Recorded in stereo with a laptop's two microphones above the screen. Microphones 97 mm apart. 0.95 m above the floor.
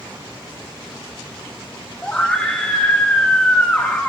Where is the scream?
10° left (ahead or behind), 1.5 m.